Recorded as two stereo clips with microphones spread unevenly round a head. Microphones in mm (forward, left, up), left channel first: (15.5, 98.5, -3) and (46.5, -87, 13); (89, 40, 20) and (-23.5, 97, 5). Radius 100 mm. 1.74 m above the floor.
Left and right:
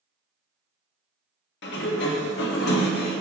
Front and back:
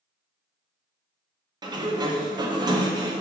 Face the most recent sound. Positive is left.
turn(degrees=100)